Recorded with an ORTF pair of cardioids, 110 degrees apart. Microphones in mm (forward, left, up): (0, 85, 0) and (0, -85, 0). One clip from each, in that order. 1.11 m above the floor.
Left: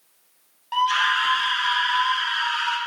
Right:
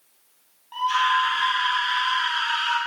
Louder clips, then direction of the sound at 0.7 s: Left 1 dB; 60° left.